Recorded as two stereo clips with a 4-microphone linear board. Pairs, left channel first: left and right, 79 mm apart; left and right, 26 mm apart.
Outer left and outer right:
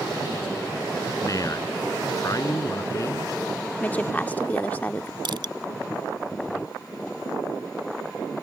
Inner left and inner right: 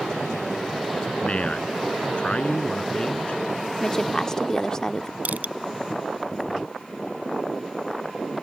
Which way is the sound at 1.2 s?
45° left (ahead or behind).